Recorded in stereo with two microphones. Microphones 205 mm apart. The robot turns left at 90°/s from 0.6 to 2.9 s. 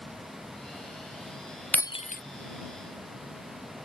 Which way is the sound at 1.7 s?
5° left (ahead or behind).